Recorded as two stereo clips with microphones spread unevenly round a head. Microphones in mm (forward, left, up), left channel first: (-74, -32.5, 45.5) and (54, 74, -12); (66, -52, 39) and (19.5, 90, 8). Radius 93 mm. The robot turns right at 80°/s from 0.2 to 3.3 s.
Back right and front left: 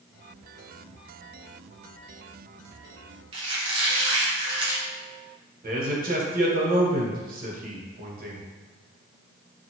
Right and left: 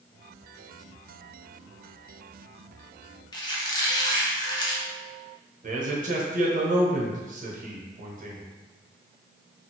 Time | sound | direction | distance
3.3 | a squeak | 35° right | 0.7 m
5.6 | a man speaking | 75° left | 1.0 m